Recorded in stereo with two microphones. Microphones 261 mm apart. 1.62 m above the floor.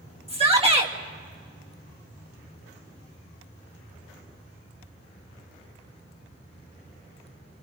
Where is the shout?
25° right (ahead or behind), 2.5 m.